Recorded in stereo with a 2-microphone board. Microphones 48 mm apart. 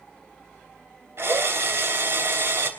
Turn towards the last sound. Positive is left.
turn(degrees=-60)  # may be behind; listen again after turning